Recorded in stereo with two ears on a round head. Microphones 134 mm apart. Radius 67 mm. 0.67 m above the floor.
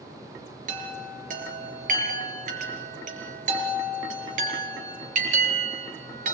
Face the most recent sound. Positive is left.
turn(degrees=-60)  # may be behind; listen again after turning